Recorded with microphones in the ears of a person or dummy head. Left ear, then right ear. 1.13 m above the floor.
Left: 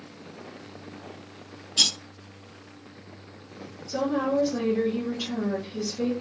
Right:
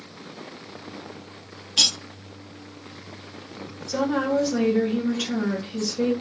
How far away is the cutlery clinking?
About 0.9 m.